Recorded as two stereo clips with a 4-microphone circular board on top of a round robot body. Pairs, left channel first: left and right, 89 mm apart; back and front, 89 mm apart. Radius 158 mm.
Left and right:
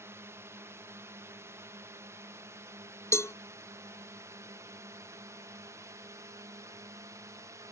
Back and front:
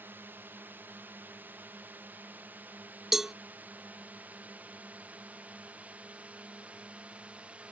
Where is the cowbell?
80° left.